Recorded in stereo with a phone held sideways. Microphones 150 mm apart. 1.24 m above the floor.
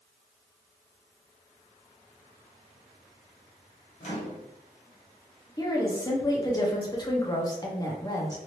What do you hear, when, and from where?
4.0 s a microwave: 55° left (ahead or behind), 0.9 m
5.6 s a woman speaking: 25° left (ahead or behind), 0.9 m